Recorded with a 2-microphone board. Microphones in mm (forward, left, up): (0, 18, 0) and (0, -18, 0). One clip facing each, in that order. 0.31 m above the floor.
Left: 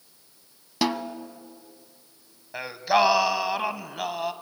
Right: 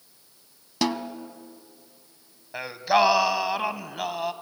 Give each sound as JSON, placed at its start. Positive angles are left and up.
{"t": 0.8, "sound": "a snare drum", "side_deg": 10, "distance_m": 0.6}
{"t": 2.5, "sound": "singing", "side_deg": 0, "distance_m": 0.7}